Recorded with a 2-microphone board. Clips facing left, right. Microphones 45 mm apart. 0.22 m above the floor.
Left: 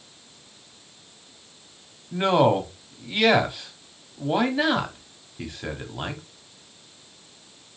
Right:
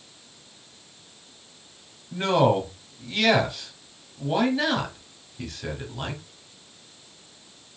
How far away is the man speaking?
About 1.0 m.